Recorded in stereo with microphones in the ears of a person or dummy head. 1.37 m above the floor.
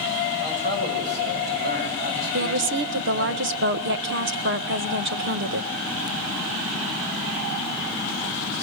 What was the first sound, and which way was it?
A man speaking, 50° right (ahead or behind).